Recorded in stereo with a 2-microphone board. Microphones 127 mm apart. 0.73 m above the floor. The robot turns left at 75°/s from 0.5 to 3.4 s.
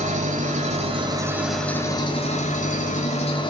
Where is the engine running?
100° right, 1.7 m; by 3.5 s 40° left, 1.7 m.